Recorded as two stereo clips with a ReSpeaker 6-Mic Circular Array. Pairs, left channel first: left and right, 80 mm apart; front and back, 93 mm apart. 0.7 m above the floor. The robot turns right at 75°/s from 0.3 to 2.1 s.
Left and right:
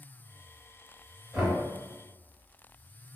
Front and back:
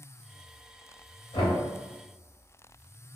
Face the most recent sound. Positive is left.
turn(degrees=45)